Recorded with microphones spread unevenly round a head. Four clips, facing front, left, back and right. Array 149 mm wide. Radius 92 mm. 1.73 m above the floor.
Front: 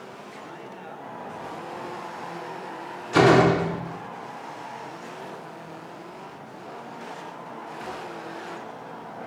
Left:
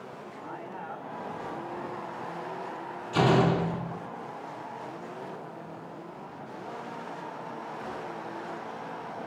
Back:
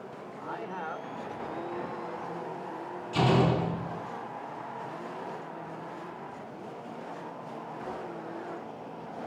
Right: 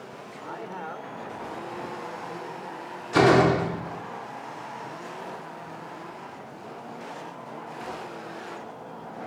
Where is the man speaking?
125° right, 6.5 m.